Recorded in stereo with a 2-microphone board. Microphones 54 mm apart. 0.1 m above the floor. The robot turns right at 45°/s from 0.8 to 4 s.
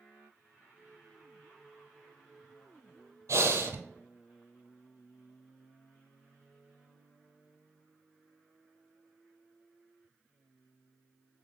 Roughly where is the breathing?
Right.